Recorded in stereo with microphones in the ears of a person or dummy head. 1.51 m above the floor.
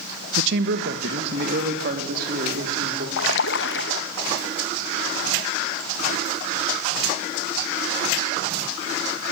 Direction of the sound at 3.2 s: 70° left (ahead or behind).